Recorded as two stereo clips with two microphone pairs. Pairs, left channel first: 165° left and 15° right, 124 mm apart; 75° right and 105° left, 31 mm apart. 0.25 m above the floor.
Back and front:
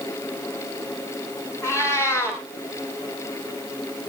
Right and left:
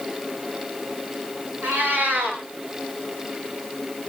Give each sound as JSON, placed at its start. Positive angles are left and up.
{"t": 1.6, "sound": "a cat meowing", "azimuth_deg": 100, "distance_m": 6.5}